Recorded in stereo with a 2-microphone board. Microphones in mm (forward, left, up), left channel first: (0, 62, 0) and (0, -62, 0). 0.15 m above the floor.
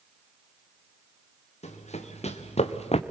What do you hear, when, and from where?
1.6 s running footsteps: 60° left (ahead or behind), 2.5 m; by 3.0 s 55° left (ahead or behind), 0.8 m